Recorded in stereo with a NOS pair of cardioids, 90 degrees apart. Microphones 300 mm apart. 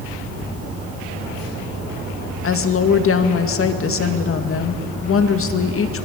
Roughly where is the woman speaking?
Ahead left.